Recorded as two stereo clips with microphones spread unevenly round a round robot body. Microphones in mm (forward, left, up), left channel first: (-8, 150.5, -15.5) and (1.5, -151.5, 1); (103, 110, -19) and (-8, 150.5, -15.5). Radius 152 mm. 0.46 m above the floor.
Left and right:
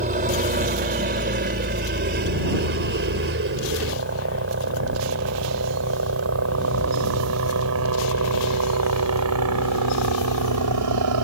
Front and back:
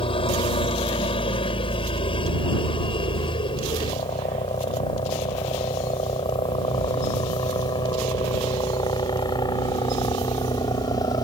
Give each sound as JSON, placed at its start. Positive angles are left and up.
{"t": 0.0, "sound": "a helicopter", "azimuth_deg": -35}